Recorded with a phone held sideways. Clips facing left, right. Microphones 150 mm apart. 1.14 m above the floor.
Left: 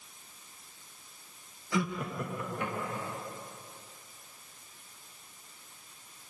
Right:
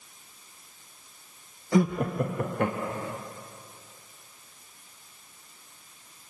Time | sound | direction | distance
1.7 | laughter | 40° right (ahead or behind) | 0.7 m